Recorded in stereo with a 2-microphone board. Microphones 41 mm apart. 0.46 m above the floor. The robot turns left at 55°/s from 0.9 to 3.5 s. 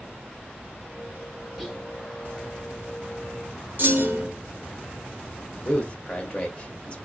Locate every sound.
1.6 s whispering: 5° right (ahead or behind), 1.5 m; by 1.9 s 15° right (ahead or behind), 1.5 m
3.8 s a clunk: 50° right (ahead or behind), 1.4 m
5.7 s a man speaking: 25° left (ahead or behind), 1.3 m